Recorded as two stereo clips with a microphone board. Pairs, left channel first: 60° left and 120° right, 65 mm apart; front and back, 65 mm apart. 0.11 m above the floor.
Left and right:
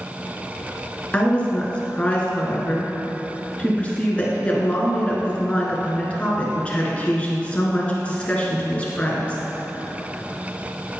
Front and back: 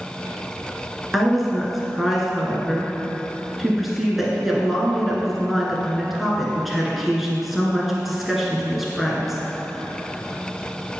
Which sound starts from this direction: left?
A woman speaking, at 1.1 s.